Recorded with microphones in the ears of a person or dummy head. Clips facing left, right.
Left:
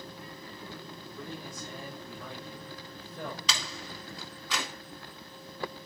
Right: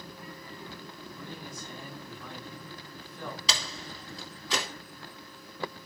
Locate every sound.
1.2 s a man speaking: 40° left (ahead or behind), 7 m
3.5 s a door slam: 35° right (ahead or behind), 3 m